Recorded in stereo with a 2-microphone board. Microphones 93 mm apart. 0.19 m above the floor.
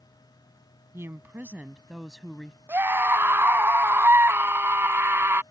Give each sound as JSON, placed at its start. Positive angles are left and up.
{"t": 0.9, "sound": "a woman speaking", "side_deg": -30}
{"t": 2.7, "sound": "a scream", "side_deg": -25}